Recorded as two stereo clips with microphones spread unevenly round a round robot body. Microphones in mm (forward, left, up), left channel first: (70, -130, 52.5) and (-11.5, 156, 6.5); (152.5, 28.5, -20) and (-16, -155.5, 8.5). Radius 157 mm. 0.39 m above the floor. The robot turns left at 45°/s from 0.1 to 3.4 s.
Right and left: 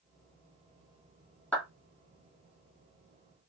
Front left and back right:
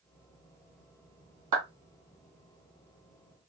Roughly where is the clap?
Behind.